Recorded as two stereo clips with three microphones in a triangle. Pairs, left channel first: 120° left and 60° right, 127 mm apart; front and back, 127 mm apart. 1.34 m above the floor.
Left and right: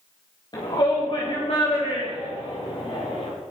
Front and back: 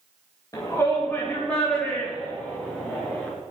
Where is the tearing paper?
I don't hear tearing paper.